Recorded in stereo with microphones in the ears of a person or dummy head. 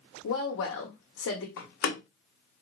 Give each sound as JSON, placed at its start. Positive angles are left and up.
{"t": 0.2, "sound": "a woman speaking", "side_deg": 70, "distance_m": 1.0}
{"t": 1.6, "sound": "a door slam", "side_deg": 55, "distance_m": 0.9}